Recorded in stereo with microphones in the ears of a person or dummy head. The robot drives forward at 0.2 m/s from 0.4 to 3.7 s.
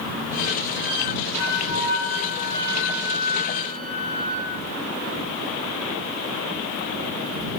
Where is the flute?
75° left (ahead or behind), 0.5 m; by 4.5 s 40° left (ahead or behind), 0.8 m.